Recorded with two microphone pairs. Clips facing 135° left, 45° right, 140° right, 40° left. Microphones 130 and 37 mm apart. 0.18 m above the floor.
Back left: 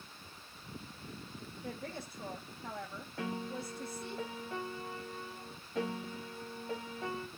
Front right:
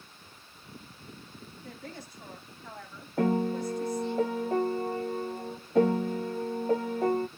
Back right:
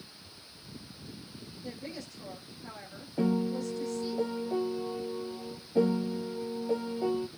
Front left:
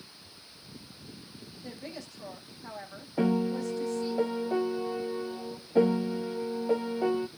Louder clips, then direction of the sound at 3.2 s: Front right 13 dB, front left 2 dB; 10° right.